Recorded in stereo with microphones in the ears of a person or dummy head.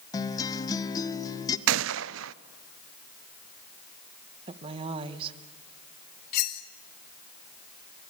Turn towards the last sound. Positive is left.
turn(degrees=55)  # may be behind; listen again after turning